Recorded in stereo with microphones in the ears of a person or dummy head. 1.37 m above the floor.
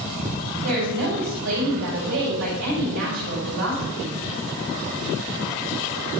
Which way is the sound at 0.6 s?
70° right (ahead or behind).